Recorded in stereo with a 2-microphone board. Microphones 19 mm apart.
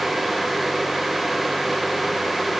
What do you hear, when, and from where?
Only background noise.